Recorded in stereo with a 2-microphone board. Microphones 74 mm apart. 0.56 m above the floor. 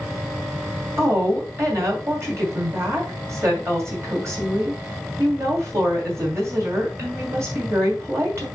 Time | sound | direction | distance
1.0 | a woman speaking | 40° right (ahead or behind) | 2.5 m